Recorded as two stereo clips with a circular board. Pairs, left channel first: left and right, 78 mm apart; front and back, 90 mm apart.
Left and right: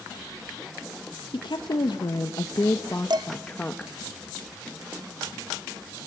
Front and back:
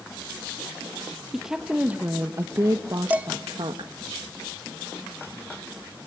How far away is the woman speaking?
About 1.4 m.